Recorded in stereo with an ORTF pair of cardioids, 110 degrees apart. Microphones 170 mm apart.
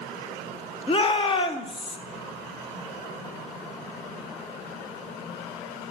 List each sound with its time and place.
0.9 s a shout: 30° left, 1.1 m